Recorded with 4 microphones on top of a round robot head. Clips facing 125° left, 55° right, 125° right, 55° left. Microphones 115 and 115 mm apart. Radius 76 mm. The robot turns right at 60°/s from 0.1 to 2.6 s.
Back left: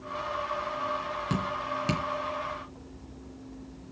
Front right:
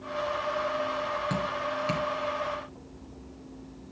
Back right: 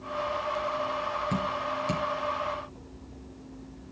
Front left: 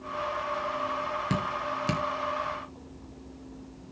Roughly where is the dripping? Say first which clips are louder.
Front right 1 dB, even; ahead left.